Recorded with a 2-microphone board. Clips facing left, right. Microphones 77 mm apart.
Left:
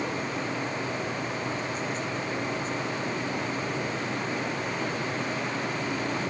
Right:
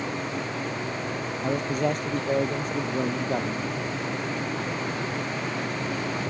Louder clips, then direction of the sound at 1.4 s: Right 6 dB; 65° right (ahead or behind).